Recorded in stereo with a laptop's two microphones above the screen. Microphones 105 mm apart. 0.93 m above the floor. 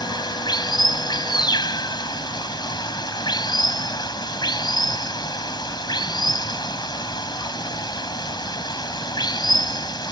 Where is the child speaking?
I don't hear a child speaking.